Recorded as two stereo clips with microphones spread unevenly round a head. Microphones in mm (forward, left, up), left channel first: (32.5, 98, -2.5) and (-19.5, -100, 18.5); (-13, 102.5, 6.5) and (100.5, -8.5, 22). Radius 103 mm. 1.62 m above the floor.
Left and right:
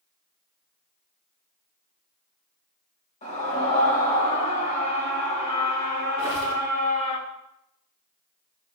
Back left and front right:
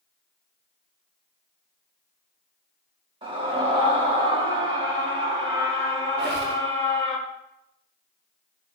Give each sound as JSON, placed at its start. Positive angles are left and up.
{"t": 3.2, "sound": "a scream", "azimuth_deg": 15, "distance_m": 3.5}
{"t": 6.2, "sound": "a squeak", "azimuth_deg": -25, "distance_m": 4.0}